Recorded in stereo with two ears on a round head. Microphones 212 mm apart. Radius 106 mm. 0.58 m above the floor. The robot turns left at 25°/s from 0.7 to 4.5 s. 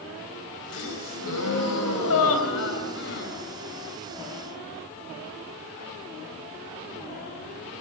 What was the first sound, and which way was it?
A gasp, 115° left.